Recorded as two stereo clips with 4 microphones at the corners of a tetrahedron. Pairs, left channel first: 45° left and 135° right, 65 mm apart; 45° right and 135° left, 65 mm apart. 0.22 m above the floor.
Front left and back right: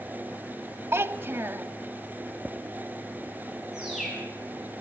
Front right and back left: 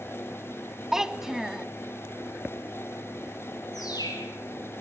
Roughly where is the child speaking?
Behind right.